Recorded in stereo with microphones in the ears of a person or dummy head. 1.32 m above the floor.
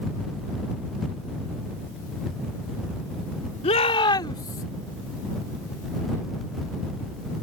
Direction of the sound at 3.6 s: 35° left (ahead or behind).